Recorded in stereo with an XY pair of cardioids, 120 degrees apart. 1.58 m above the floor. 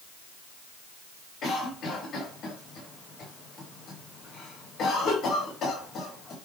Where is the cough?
55° left, 3.5 m.